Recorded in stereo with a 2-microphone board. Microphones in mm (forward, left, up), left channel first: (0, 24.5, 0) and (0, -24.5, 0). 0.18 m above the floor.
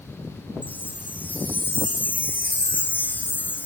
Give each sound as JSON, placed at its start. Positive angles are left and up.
{"t": 0.6, "sound": "a chime", "side_deg": 35}